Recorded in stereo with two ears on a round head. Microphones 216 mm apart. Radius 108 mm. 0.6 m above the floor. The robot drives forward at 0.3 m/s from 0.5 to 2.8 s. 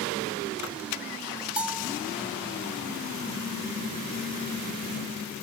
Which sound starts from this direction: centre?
A bell, at 1.6 s.